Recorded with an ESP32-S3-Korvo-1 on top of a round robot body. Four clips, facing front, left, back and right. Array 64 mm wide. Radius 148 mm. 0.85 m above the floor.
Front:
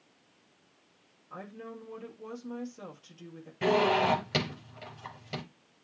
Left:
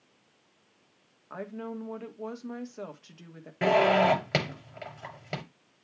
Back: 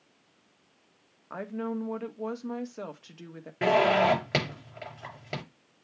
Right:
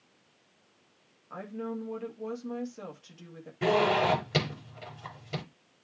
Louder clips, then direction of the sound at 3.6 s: Left 3 dB, back 3 dB; 125° left.